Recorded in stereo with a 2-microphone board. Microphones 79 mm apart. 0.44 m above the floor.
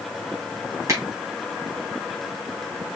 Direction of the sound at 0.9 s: 40° right (ahead or behind).